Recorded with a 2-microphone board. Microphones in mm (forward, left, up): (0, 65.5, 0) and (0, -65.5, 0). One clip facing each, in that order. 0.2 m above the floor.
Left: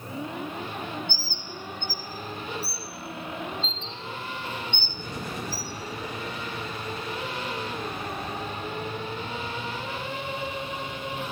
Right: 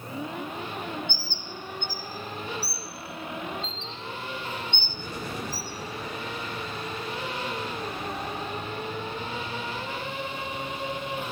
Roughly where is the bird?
Right.